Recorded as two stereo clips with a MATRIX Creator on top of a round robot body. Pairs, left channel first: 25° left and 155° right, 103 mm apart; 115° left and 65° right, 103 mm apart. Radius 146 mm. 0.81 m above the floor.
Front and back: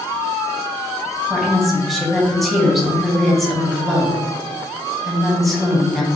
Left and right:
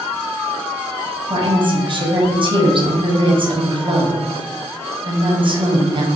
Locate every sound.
1.3 s a woman speaking: 65° right, 0.9 m